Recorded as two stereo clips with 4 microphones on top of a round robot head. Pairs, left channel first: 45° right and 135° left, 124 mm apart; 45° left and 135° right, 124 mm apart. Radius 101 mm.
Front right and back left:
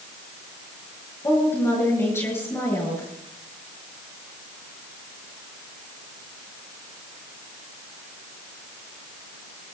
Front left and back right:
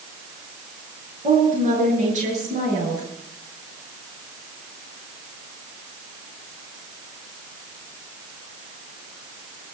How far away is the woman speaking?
About 8.5 m.